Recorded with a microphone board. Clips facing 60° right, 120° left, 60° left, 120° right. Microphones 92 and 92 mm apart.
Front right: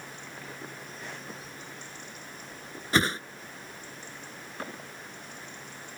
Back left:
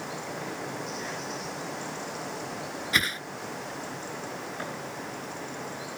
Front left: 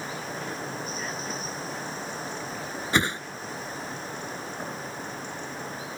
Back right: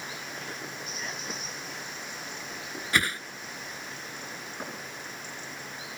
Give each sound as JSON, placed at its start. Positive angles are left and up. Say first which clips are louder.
{"t": 0.0, "sound": "running water", "louder": "back left 9 dB, front left 6 dB", "azimuth_deg": 115}
{"t": 2.9, "sound": "a whoosh", "louder": "front right 5 dB, front left 3 dB", "azimuth_deg": -5}